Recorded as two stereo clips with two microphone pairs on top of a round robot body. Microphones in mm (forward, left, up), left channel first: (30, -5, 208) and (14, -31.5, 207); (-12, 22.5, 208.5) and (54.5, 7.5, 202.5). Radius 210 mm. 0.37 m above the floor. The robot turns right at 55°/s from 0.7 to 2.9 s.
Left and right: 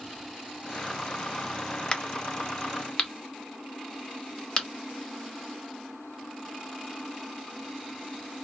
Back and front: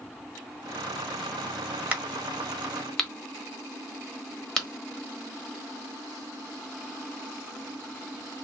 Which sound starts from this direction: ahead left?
A crack, at 1.9 s.